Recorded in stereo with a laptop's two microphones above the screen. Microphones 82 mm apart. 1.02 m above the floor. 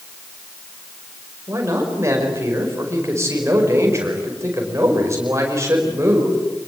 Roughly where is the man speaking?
Right.